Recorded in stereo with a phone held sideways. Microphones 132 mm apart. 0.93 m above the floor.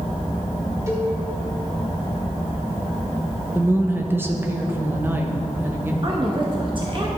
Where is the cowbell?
20° right (ahead or behind), 1.7 m.